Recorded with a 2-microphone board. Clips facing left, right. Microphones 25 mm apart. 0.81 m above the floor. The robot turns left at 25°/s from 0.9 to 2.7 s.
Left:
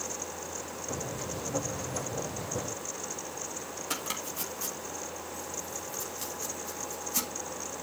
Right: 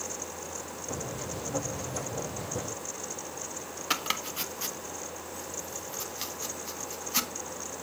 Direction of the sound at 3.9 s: 40° right (ahead or behind).